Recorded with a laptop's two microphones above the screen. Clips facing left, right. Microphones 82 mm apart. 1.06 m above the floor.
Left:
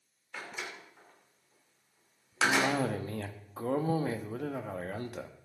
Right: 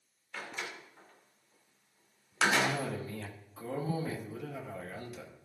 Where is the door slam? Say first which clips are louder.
Even; 5° left (ahead or behind), 2 m.